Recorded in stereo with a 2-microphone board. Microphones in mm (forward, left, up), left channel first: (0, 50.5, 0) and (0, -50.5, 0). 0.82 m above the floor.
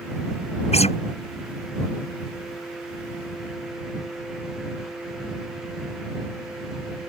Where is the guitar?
80° left.